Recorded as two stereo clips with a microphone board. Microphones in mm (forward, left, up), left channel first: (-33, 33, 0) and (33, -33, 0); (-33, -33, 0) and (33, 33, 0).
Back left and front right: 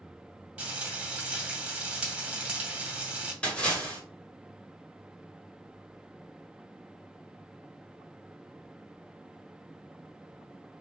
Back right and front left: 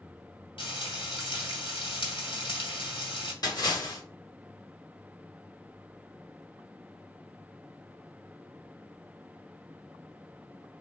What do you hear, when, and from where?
0.6 s frying: 120° right, 2 m
3.4 s a splash: 150° right, 1.8 m